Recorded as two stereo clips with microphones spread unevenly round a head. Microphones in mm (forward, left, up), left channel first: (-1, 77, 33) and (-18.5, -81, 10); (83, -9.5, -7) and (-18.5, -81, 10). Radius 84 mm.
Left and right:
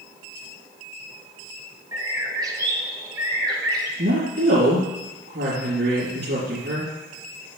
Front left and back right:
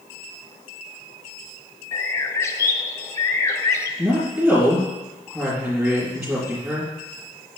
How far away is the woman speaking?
About 3.5 m.